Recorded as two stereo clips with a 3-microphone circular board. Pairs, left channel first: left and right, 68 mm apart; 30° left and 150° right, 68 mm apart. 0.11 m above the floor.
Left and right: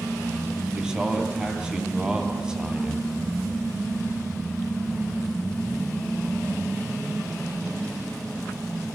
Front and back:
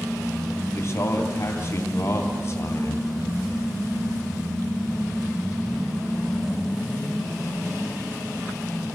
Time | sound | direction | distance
0.8 | a man speaking | 15° right | 3 m